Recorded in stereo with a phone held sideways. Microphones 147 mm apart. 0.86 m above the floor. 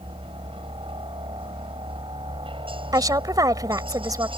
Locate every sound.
0.0 s a helicopter: 35° right (ahead or behind)
2.9 s a woman speaking: 25° right (ahead or behind)